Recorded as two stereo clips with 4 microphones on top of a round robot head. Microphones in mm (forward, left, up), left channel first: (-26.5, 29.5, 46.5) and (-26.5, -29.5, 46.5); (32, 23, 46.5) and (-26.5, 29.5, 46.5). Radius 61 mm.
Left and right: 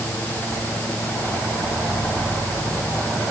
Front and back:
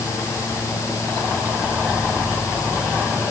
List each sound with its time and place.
Only background noise.